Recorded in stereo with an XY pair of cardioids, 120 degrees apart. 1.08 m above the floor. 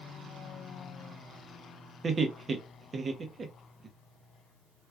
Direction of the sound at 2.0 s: 30° right.